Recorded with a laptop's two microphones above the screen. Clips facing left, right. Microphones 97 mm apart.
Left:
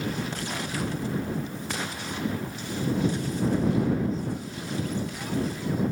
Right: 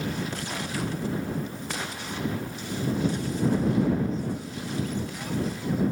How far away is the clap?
I don't hear a clap.